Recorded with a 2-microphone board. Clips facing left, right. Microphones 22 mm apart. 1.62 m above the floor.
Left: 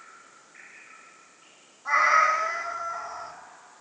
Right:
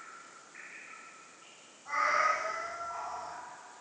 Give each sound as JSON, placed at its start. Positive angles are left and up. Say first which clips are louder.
{"t": 1.9, "sound": "a cat meowing", "louder": "left 8 dB", "side_deg": 65, "distance_m": 2.5}